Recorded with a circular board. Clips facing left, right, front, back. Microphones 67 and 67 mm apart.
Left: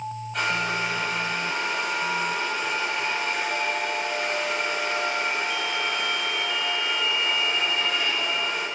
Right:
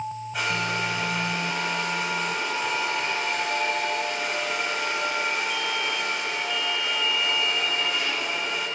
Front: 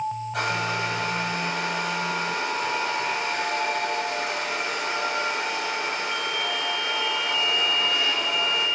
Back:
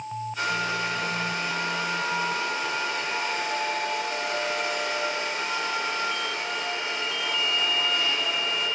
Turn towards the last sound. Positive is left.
turn(degrees=-5)